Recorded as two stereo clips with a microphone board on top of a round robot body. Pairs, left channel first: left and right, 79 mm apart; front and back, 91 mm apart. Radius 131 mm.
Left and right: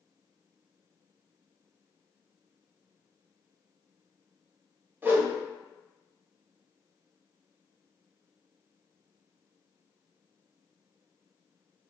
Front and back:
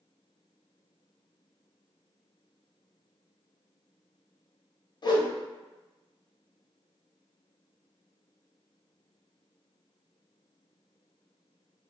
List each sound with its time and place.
5.0 s a whoosh: 30° right, 0.9 m